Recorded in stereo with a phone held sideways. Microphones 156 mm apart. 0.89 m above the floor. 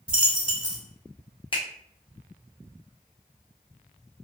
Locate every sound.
0.1 s a dropped coin: 10° right (ahead or behind), 0.7 m
1.5 s a finger snap: 35° left (ahead or behind), 0.8 m